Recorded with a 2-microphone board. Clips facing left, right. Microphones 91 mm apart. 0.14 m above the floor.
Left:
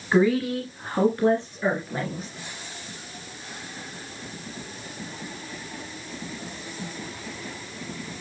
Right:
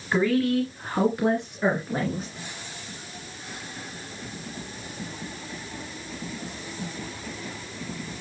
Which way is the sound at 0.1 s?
15° left (ahead or behind).